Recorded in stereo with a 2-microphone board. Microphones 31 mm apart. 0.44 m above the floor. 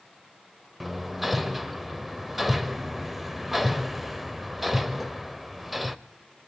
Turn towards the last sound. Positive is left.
turn(degrees=-5)  # may be behind; listen again after turning